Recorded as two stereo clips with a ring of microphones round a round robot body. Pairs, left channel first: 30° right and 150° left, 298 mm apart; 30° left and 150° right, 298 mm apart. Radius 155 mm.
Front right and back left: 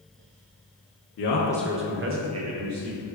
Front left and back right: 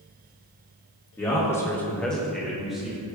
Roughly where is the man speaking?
Ahead right.